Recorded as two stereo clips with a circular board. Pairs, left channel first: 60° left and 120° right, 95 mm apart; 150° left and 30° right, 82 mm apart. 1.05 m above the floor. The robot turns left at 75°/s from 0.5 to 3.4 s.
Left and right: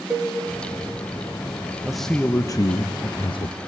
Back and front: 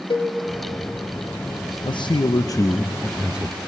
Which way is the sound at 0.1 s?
160° left.